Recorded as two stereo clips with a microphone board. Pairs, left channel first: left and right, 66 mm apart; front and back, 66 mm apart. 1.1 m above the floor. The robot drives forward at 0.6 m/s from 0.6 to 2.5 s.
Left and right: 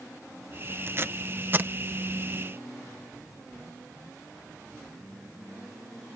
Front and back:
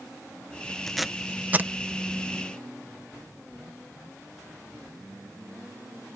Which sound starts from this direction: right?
Tape being pulled, at 0.9 s.